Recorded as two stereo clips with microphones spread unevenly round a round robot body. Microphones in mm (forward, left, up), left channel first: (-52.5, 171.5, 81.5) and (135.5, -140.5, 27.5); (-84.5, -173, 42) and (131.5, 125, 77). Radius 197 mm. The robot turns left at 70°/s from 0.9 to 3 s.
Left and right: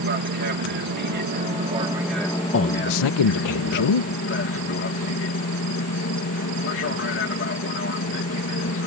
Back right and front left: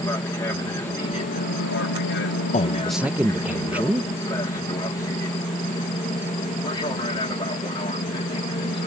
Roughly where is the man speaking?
Behind.